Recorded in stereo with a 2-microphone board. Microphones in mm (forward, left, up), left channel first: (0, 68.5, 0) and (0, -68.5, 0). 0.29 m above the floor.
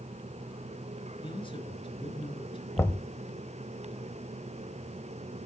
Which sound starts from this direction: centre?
Knocking, at 2.8 s.